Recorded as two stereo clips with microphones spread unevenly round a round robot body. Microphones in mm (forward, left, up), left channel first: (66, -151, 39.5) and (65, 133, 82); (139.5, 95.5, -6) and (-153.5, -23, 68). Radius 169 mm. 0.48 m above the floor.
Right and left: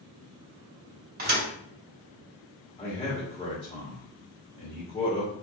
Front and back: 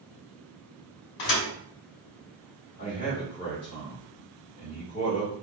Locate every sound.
1.2 s a thud: 30° left, 2.0 m
2.8 s a man speaking: 30° right, 1.5 m